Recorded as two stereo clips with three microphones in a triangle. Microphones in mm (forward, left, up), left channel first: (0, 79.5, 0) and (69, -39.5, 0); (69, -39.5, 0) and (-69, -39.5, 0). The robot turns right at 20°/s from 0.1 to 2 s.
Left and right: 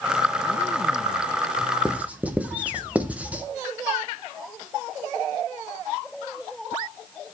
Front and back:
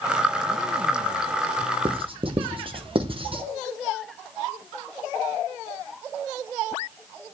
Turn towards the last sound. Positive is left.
turn(degrees=-140)